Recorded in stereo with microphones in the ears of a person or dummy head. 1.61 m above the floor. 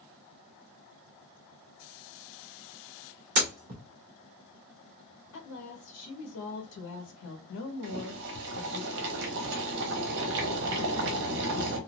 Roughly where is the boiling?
Right.